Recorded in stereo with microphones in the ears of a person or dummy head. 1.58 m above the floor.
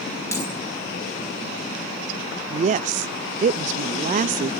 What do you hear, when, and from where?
0.3 s a dropped coin: 20° left (ahead or behind), 3.5 m
2.5 s a woman speaking: 45° right (ahead or behind), 0.5 m